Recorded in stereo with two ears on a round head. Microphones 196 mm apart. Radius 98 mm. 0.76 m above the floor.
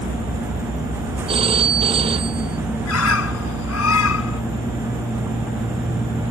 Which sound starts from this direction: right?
A phone ringing, at 1.3 s.